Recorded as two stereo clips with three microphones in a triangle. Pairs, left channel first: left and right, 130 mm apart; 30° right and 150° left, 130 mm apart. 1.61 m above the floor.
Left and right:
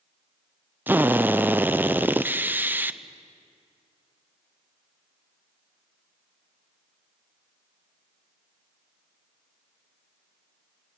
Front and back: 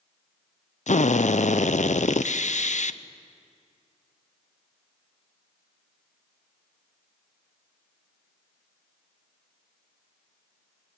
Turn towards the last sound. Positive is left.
turn(degrees=-15)